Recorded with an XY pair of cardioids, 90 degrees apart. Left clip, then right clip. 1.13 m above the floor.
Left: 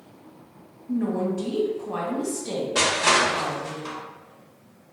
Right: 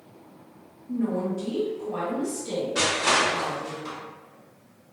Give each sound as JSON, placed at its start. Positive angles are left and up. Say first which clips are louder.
{"t": 0.9, "sound": "a woman speaking", "louder": "left 2 dB", "azimuth_deg": 65, "distance_m": 1.1}
{"t": 2.8, "sound": "crushing", "louder": "left 3 dB", "azimuth_deg": 65, "distance_m": 0.7}